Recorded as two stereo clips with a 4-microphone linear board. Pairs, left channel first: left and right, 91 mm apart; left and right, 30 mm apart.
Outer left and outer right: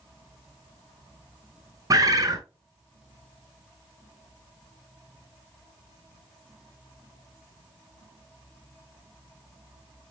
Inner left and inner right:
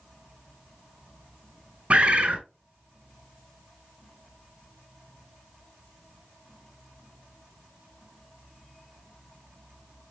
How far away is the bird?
About 0.5 m.